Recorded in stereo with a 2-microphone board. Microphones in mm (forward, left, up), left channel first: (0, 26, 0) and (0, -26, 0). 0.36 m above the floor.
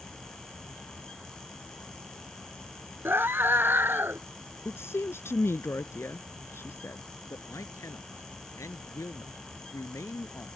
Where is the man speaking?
80° left.